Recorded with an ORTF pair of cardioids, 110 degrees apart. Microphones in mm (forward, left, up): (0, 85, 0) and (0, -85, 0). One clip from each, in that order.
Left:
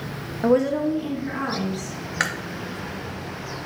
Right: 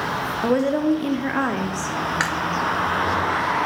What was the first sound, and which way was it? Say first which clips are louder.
A woman speaking: left 1 dB; straight ahead.